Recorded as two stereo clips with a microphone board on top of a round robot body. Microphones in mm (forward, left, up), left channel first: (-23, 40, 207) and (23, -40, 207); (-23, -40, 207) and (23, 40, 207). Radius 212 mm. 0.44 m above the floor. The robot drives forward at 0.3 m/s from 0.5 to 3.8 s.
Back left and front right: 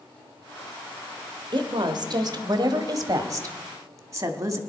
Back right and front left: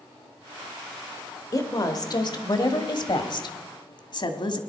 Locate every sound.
1.5 s a woman speaking: 80° right, 1.7 m; by 4.6 s 110° right, 1.7 m